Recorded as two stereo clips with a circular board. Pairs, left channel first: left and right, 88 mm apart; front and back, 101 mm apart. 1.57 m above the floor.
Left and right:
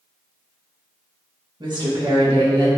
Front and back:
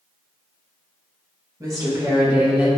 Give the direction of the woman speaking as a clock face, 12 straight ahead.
4 o'clock.